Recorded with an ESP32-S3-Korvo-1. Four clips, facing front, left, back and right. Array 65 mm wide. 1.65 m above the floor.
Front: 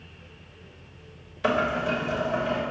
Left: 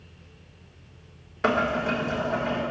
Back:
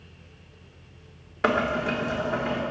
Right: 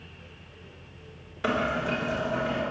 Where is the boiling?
155° left, 4 m.